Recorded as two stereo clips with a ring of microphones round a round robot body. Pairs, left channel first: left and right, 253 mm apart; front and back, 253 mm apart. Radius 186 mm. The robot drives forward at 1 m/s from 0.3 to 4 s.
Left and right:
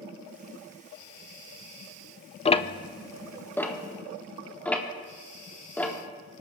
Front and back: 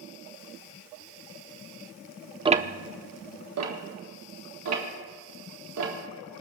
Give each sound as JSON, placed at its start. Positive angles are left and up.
{"t": 2.5, "sound": "ticking", "azimuth_deg": 125, "distance_m": 0.5}